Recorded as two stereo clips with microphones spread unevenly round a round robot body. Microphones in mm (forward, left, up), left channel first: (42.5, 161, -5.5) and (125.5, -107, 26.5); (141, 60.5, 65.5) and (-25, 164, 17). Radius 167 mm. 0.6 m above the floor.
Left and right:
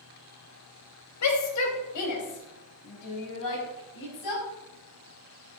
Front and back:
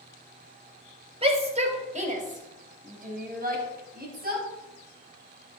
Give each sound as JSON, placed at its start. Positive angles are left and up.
{"t": 1.2, "sound": "a shout", "azimuth_deg": 95, "distance_m": 3.5}